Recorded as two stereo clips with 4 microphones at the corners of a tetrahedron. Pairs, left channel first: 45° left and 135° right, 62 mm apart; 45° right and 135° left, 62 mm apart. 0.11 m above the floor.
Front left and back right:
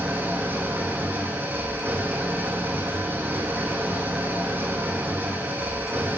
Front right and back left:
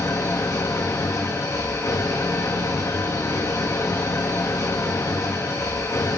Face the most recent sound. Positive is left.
turn(degrees=-80)